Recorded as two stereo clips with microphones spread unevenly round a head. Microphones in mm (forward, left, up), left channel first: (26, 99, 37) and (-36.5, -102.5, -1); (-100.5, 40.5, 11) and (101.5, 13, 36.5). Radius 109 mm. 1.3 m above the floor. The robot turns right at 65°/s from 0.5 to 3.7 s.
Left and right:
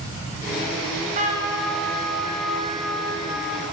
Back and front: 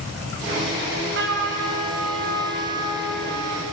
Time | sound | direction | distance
0.8 | a trumpet | 75° right | 7.5 m